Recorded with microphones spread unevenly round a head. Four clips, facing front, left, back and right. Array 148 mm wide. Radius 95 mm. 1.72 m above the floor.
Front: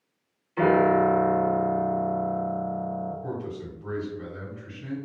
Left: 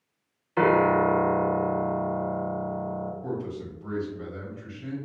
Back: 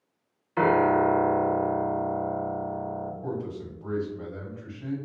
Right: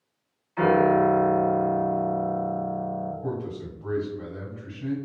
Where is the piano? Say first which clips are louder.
Right 1 dB, front 1 dB; 105° left, 0.8 m.